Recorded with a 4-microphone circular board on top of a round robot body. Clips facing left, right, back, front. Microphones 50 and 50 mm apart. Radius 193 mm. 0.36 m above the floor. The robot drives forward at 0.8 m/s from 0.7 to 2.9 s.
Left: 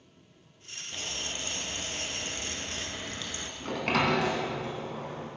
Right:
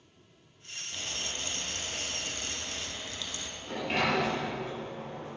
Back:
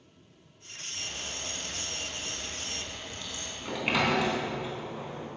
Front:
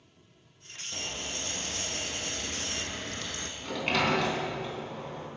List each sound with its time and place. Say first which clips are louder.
0.9 s frying: left 1 dB, front 2 dB; 15° left, 3 m; by 3.5 s 35° left, 1.4 m
3.6 s a sliding door: left 3 dB, back 1 dB; 100° left, 3 m